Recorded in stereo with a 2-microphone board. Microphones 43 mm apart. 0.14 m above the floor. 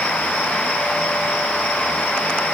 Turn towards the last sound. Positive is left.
No sound to turn to.